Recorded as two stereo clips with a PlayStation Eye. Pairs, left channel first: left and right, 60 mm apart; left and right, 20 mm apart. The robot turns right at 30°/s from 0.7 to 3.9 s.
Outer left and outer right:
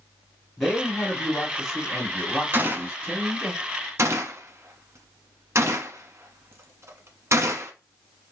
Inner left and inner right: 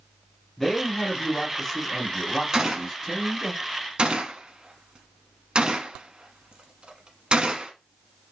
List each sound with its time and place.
0.6 s a man speaking: 5° left (ahead or behind), 1.6 m; by 3.5 s 25° right (ahead or behind), 1.6 m
2.5 s a gunshot: 35° right (ahead or behind), 0.9 m; by 7.7 s 50° right (ahead or behind), 0.9 m